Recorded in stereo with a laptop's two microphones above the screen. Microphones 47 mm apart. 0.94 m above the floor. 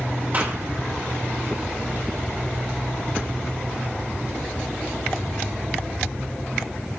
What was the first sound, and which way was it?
A clap, 35° right (ahead or behind).